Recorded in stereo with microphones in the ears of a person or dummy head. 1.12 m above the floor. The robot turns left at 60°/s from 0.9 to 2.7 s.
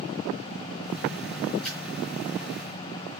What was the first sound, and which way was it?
A splash, centre (ahead or behind).